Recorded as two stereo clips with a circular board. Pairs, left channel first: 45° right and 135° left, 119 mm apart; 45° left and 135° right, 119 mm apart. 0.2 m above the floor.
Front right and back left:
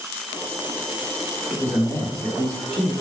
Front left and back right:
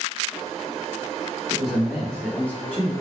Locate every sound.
1.5 s a man speaking: 140° left, 1.1 m; by 2.9 s 10° left, 1.1 m